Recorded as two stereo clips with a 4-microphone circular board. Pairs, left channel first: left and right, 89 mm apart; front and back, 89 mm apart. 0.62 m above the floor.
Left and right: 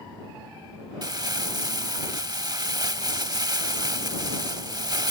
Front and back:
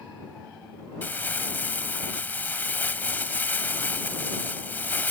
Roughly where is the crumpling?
Ahead right.